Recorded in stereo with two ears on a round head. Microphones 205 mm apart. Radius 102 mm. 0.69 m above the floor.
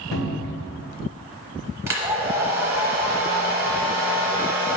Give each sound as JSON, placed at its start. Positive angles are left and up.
{"t": 0.1, "sound": "a cupboard door", "side_deg": 75, "distance_m": 2.0}
{"t": 1.9, "sound": "a hair dryer", "side_deg": -10, "distance_m": 1.0}